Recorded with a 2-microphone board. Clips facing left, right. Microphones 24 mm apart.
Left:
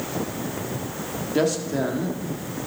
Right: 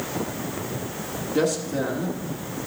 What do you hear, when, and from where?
1.4 s a man speaking: 15° left (ahead or behind), 1.4 m